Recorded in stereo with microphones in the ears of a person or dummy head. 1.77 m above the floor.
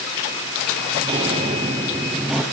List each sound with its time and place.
0.9 s footsteps: 25° right (ahead or behind), 2 m; by 2.4 s 5° right (ahead or behind), 1.9 m